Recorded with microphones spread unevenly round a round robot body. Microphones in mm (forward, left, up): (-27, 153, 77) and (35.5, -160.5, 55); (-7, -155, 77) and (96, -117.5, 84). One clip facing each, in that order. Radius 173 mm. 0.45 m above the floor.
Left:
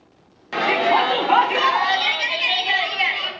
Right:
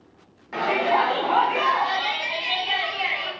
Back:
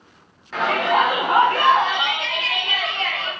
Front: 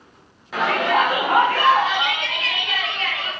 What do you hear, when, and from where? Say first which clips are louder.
0.5 s a shout: left 3 dB, even; 105° left, 1.1 m; by 3.3 s 145° left, 2.5 m